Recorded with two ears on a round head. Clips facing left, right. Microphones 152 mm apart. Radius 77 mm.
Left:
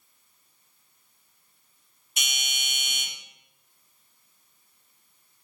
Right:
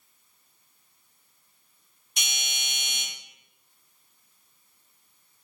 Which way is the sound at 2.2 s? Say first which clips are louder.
Left 1 dB; 5° left (ahead or behind).